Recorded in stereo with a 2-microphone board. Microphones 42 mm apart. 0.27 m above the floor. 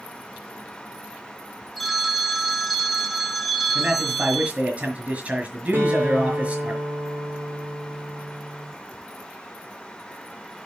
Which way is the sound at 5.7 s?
45° right (ahead or behind).